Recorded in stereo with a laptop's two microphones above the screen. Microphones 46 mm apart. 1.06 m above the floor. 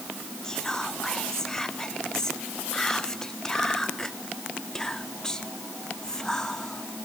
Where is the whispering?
10° left (ahead or behind), 0.8 m.